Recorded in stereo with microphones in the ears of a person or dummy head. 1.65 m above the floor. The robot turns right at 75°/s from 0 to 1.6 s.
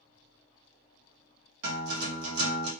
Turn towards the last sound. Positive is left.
turn(degrees=-60)  # may be behind; listen again after turning